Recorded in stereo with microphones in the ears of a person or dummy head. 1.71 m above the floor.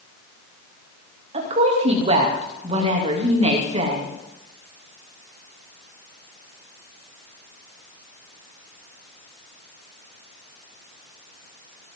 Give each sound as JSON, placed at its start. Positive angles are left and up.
{"t": 1.3, "sound": "a woman speaking", "side_deg": -40, "distance_m": 3.0}